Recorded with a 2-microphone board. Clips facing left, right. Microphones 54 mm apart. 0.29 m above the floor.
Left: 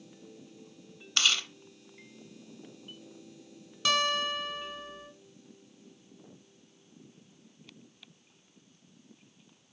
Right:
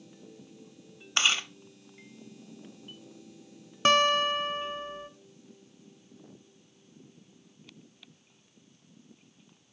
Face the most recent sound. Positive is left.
turn(degrees=-40)  # may be behind; listen again after turning